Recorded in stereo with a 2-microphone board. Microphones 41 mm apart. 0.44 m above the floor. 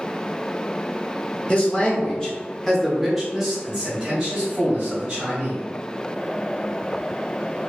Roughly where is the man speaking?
Left.